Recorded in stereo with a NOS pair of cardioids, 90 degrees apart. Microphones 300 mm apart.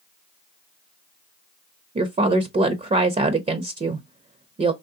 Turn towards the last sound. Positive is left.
turn(degrees=-25)